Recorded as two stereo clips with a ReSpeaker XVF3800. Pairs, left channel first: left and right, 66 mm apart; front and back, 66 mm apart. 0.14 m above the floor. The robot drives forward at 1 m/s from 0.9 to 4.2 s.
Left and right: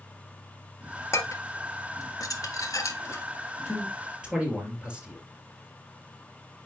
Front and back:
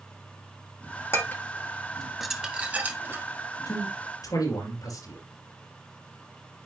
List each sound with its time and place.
1.1 s dishes clattering: 50° left, 1.7 m; by 3.2 s 130° left, 1.8 m
3.6 s a man speaking: 15° right, 4 m